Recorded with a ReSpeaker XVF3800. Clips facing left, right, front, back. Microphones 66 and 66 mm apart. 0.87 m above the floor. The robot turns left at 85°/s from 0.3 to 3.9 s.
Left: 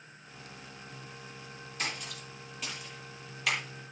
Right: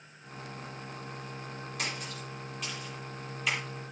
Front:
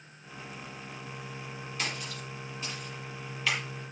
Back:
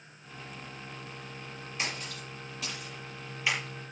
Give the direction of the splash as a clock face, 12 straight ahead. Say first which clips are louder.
Left 1 dB, even; 4 o'clock.